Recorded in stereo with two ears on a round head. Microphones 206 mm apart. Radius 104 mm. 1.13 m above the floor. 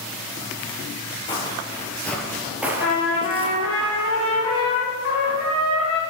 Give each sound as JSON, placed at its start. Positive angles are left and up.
{"t": 1.3, "sound": "footsteps", "side_deg": 20, "distance_m": 1.4}
{"t": 2.8, "sound": "a trumpet", "side_deg": 65, "distance_m": 2.0}